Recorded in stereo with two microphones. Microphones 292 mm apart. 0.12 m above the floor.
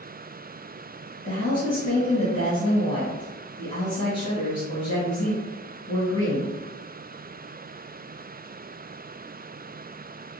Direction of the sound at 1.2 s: 25° left (ahead or behind).